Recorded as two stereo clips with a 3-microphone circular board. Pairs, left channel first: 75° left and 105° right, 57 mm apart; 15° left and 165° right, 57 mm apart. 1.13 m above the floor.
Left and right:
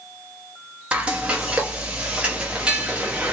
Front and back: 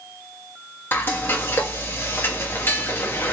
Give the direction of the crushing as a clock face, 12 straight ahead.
I don't hear crushing.